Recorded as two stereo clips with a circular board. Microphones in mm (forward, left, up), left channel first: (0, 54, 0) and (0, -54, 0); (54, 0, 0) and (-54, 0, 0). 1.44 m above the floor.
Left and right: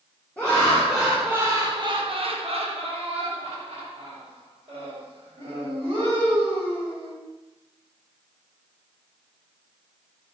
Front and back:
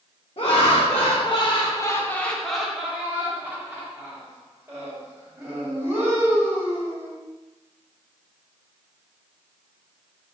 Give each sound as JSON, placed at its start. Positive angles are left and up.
{"t": 0.4, "sound": "laughter", "azimuth_deg": 15, "distance_m": 0.9}